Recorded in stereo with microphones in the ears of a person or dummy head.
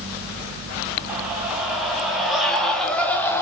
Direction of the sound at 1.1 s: 10° right (ahead or behind).